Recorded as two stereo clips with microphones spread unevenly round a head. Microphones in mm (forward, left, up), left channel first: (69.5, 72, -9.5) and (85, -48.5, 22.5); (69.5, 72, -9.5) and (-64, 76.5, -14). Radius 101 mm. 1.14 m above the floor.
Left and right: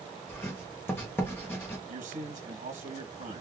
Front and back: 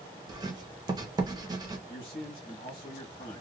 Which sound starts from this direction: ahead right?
A man speaking, at 1.9 s.